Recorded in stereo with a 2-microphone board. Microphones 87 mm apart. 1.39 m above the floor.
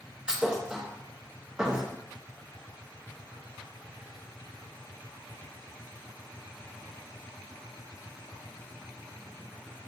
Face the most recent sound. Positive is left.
turn(degrees=-10)  # may be behind; listen again after turning